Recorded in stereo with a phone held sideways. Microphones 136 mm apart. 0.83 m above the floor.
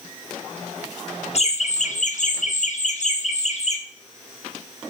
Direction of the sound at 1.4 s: 50° left (ahead or behind).